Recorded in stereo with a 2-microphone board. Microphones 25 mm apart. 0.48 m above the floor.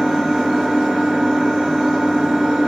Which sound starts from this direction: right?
An engine running, at 0.0 s.